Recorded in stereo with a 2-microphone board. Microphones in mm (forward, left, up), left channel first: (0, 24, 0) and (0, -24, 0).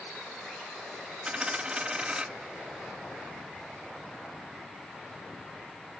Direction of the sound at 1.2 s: 20° right (ahead or behind).